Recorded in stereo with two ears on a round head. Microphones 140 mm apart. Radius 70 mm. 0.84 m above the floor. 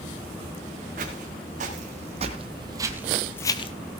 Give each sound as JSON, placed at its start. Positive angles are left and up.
{"t": 1.0, "sound": "footsteps", "side_deg": -55, "distance_m": 3.0}